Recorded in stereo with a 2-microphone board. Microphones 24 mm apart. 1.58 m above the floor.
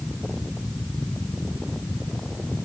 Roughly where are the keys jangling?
No keys jangling in this recording.